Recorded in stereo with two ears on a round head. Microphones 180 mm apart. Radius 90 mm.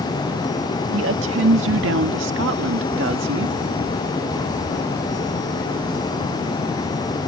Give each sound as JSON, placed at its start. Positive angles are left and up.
{"t": 0.9, "sound": "a woman speaking", "side_deg": -70}